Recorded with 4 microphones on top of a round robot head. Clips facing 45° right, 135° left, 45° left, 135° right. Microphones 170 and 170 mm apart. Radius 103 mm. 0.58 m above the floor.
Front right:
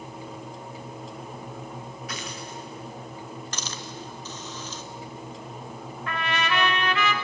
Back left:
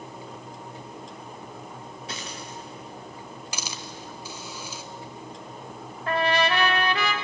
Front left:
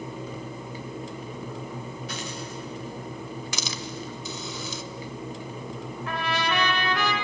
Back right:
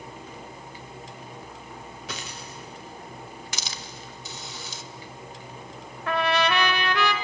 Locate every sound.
2.1 s a dropped coin: 160° right, 3.5 m
3.5 s a hiss: 55° left, 0.7 m
6.1 s a trumpet: 170° right, 1.2 m